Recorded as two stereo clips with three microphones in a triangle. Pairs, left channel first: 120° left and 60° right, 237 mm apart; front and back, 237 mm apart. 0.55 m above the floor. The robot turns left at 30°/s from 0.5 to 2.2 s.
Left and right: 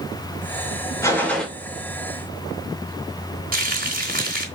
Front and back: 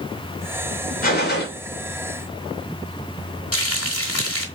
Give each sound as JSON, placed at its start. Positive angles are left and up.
{"t": 1.0, "sound": "a gunshot", "azimuth_deg": 45, "distance_m": 2.5}
{"t": 3.5, "sound": "frying", "azimuth_deg": -10, "distance_m": 2.5}